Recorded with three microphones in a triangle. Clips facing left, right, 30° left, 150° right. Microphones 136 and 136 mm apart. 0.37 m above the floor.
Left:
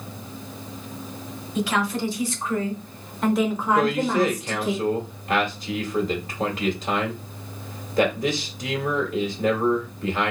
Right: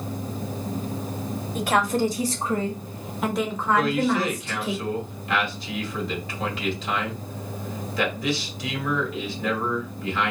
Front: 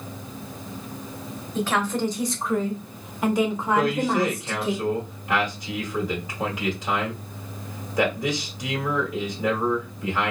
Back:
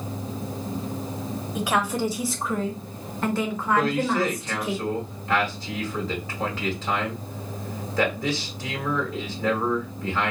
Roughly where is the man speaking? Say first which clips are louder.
Left 1 dB, front 1 dB; left.